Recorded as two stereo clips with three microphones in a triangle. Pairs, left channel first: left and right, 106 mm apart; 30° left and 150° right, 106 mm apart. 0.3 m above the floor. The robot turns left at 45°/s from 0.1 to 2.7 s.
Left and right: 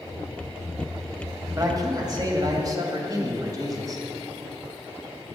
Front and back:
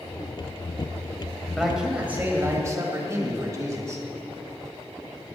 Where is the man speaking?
60° right, 1.9 m; by 4.0 s 115° right, 1.9 m.